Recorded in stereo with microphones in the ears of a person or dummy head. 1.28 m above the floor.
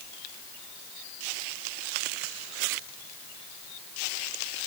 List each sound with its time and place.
Only background noise.